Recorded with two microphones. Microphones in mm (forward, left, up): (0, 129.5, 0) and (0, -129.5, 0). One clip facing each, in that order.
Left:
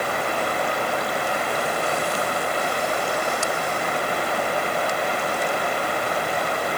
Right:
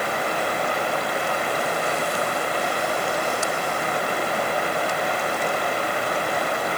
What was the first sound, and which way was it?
Only background noise.